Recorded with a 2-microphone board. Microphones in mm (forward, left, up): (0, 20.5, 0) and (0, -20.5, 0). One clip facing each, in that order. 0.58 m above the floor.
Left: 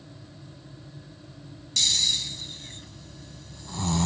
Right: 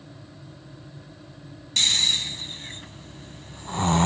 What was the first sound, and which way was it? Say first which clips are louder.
Snoring: right 3 dB; 45° right (ahead or behind).